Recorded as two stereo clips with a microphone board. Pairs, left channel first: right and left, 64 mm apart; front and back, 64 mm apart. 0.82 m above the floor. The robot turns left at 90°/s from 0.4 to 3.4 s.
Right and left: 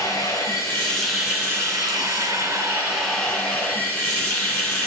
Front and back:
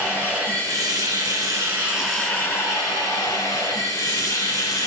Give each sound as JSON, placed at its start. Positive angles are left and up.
{"t": 0.0, "sound": "running water", "azimuth_deg": -115, "distance_m": 4.5}